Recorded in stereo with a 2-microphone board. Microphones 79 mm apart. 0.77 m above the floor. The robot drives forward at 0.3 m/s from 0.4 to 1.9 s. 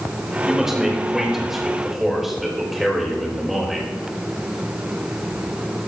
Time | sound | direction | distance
0.5 | a man speaking | 5° right (ahead or behind) | 3 m